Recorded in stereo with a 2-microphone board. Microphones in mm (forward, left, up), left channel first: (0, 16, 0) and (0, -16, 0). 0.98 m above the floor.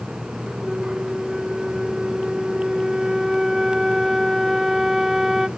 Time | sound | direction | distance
0.6 | a flute | 15° right (ahead or behind) | 0.5 m